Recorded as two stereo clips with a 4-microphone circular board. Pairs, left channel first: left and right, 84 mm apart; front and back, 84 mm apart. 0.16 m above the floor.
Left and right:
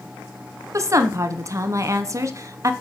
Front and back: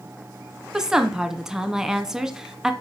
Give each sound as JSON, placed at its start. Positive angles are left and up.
{"t": 0.7, "sound": "a woman speaking", "azimuth_deg": -100, "distance_m": 1.3}